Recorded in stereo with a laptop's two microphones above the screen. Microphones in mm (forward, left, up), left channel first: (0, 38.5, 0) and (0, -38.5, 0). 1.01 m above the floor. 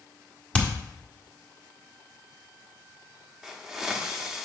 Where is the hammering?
20° left (ahead or behind), 1.3 m.